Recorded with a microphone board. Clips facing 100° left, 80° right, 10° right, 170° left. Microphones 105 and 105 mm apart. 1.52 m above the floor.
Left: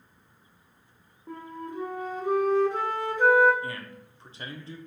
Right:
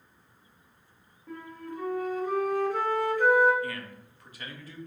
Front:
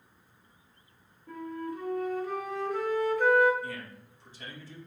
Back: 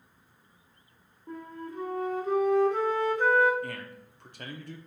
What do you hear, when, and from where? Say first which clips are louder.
1.3 s a flute: left 2 dB, front 3 dB; 145° left, 0.7 m
3.6 s a man speaking: right 1 dB, back 1 dB; 160° left, 0.5 m